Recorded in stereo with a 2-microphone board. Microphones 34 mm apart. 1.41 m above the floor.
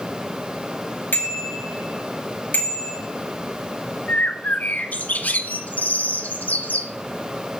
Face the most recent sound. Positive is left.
turn(degrees=50)  # may be behind; listen again after turning